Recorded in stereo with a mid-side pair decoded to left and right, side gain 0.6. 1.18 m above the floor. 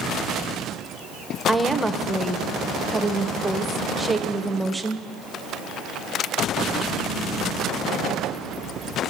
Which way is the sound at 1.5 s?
5° right.